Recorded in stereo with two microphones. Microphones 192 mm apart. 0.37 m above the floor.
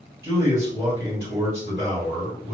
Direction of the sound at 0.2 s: 10° right (ahead or behind).